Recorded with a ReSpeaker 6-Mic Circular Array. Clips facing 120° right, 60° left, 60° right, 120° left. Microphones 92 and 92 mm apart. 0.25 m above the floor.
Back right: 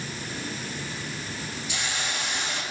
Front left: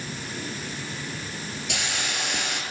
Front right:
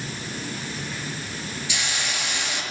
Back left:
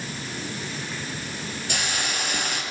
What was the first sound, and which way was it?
A hiss, 80° left.